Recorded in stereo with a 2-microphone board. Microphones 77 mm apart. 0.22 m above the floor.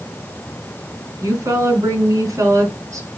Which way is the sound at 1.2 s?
40° right (ahead or behind).